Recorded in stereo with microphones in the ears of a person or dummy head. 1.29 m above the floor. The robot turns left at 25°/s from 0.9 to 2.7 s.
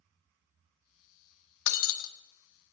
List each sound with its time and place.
1.7 s breaking glass: 65° left (ahead or behind), 1.4 m; by 2.1 s 70° left (ahead or behind), 1.4 m